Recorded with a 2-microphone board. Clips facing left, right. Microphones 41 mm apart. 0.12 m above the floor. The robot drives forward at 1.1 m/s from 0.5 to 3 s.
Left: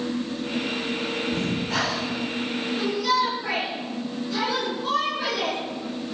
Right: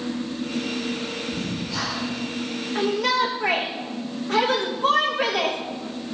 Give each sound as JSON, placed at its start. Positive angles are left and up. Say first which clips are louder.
{"t": 1.3, "sound": "breathing", "louder": "left 3 dB", "side_deg": 60, "distance_m": 3.0}
{"t": 2.8, "sound": "a shout", "louder": "right 2 dB", "side_deg": -60, "distance_m": 6.5}